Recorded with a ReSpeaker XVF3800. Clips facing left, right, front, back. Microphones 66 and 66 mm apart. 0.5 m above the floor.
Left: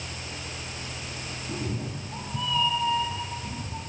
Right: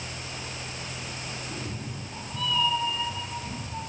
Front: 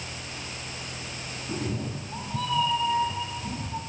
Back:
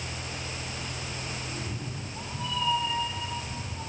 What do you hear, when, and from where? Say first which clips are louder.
1.5 s a cat meowing: left 4 dB, front 5 dB; 30° left, 4 m; by 3.8 s straight ahead, 5 m